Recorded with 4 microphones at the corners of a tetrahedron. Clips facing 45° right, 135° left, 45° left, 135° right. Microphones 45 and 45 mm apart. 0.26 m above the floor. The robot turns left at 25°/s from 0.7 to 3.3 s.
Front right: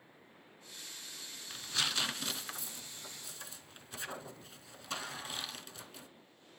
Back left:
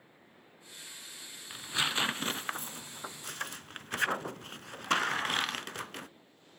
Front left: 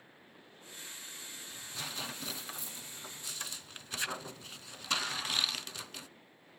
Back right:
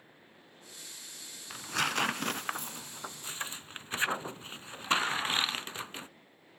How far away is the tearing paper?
About 0.6 m.